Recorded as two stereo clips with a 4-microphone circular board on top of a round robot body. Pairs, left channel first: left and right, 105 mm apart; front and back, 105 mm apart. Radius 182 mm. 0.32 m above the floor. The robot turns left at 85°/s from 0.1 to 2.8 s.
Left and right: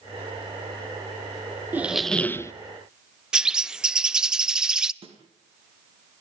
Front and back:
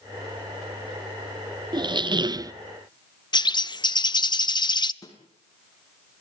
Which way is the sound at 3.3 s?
10° right.